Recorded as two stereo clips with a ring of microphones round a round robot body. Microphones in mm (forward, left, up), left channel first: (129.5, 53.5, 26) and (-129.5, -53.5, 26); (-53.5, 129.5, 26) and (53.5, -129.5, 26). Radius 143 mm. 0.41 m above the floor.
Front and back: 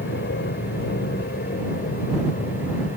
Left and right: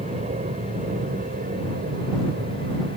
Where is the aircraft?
10° right; by 3.0 s 30° right.